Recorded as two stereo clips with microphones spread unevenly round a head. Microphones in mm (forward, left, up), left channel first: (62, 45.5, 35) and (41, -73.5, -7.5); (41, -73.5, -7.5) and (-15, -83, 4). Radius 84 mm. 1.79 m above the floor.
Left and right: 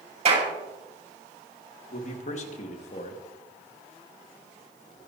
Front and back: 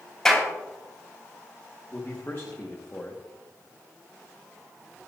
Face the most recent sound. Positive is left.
turn(degrees=85)